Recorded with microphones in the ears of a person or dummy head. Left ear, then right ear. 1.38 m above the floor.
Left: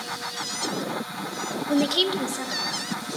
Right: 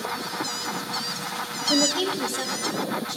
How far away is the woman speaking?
About 0.7 m.